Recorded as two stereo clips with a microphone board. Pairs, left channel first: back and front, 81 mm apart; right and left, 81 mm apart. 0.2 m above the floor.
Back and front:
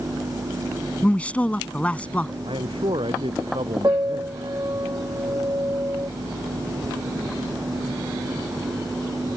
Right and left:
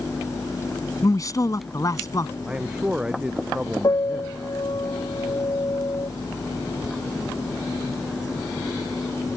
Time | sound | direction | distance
1.0 | a man speaking | 110° right | ?
2.5 | a man speaking | 10° left | ?
3.8 | a piano | 55° right | ?